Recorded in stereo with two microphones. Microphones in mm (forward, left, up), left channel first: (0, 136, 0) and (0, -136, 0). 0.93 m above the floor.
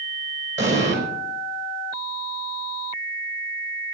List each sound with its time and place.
0.6 s an explosion: 45° right (ahead or behind), 4.5 m